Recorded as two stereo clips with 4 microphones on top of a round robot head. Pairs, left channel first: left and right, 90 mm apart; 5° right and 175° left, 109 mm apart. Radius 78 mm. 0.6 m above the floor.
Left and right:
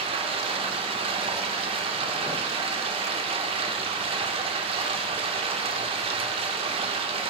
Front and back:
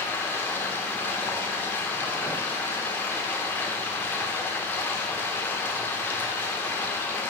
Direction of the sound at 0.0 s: 80° right.